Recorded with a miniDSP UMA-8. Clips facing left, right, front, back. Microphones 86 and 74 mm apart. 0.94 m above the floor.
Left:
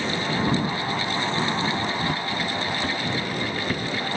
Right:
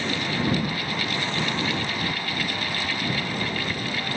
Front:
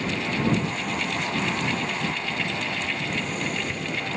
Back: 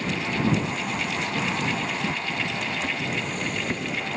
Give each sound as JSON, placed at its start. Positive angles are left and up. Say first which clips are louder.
{"t": 2.0, "sound": "footsteps", "louder": "left 3 dB, even", "azimuth_deg": 135}